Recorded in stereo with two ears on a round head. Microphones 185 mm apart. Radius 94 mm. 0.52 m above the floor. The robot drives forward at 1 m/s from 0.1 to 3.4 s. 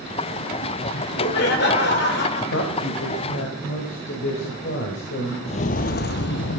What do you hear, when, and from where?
0.9 s laughter: 50° left (ahead or behind), 2.5 m
2.5 s a woman speaking: 70° left (ahead or behind), 1.8 m; by 5.3 s 60° left (ahead or behind), 2.0 m
5.5 s footsteps: 30° left (ahead or behind), 0.7 m; by 6.6 s 60° left (ahead or behind), 0.9 m